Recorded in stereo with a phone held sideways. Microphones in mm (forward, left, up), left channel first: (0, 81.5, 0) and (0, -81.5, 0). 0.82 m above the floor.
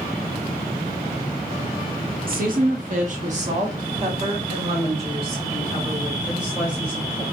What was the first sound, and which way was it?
A woman speaking, 65° right (ahead or behind).